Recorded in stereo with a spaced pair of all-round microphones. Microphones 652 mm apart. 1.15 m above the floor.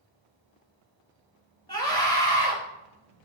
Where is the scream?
5° left (ahead or behind), 2.5 m.